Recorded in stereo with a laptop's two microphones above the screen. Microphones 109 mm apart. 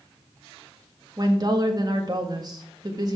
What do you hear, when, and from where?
1.2 s a woman speaking: 40° right (ahead or behind), 1.6 m